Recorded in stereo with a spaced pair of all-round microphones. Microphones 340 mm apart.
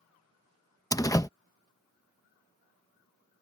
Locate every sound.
0.9 s a door slam: 10° left (ahead or behind)